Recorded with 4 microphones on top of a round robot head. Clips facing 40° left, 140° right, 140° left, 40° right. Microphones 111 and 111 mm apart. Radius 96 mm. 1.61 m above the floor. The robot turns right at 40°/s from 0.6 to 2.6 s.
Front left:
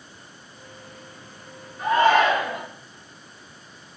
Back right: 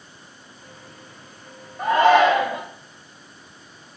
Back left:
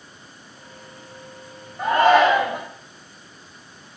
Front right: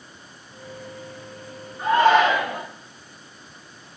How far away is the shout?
About 0.6 m.